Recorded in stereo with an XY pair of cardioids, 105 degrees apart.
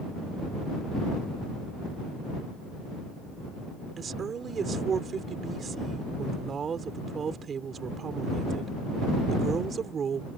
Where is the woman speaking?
45° right.